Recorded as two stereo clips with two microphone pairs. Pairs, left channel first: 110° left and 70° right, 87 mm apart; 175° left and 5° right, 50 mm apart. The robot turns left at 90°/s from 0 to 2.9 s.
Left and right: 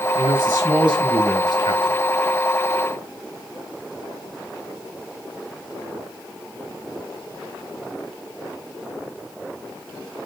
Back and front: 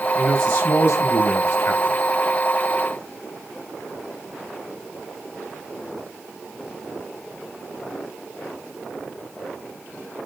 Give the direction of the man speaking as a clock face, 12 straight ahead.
3 o'clock.